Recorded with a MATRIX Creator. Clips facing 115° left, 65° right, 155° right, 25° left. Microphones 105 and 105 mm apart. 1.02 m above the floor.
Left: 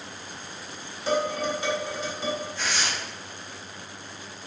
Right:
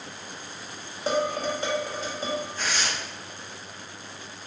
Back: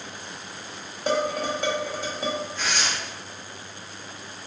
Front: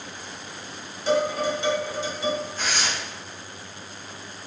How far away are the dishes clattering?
About 0.9 m.